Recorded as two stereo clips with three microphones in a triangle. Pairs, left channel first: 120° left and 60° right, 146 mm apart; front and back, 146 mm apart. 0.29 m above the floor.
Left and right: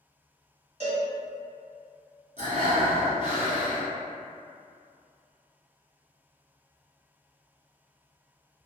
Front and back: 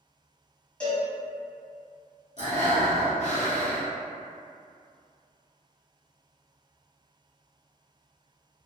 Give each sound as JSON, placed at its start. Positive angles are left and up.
{"t": 0.8, "sound": "a cowbell", "azimuth_deg": -80, "distance_m": 1.4}
{"t": 2.4, "sound": "breathing", "azimuth_deg": -35, "distance_m": 1.1}